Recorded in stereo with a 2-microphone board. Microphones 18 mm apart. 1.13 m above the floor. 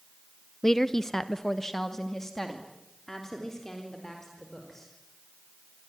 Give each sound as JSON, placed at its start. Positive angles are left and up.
{"t": 0.6, "sound": "a woman speaking", "side_deg": 25, "distance_m": 0.6}